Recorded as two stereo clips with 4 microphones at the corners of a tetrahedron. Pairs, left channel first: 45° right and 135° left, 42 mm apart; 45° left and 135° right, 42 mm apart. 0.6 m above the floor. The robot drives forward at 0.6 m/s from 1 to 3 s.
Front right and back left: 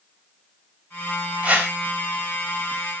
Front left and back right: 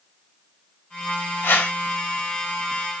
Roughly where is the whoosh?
Left.